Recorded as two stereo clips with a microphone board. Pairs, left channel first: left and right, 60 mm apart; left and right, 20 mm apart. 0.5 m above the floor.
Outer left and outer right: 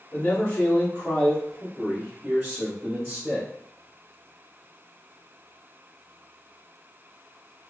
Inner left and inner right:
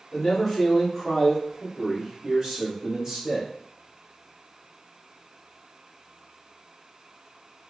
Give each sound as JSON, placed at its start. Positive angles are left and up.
{"t": 0.1, "sound": "a man speaking", "side_deg": 35, "distance_m": 1.5}